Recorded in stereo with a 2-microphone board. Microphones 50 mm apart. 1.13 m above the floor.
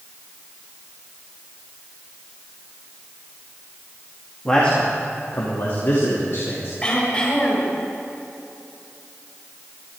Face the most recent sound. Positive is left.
turn(degrees=25)  # may be behind; listen again after turning